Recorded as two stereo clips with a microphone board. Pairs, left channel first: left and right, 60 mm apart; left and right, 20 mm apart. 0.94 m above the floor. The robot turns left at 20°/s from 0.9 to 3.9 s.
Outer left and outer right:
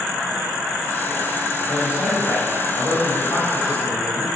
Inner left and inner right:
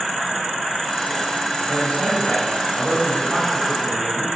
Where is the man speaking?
125° left, 5 m; by 4.3 s 80° left, 5 m.